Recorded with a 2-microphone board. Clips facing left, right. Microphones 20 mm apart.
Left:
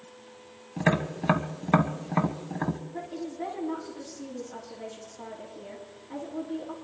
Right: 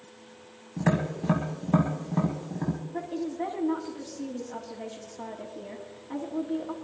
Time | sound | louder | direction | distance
0.8 | tapping | left 1 dB | 55° left (ahead or behind) | 1.5 m
2.9 | a woman speaking | right 3 dB | 25° right (ahead or behind) | 2.5 m